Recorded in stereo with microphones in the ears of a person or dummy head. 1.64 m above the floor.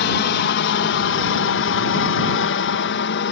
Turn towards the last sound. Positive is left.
turn(degrees=55)  # may be behind; listen again after turning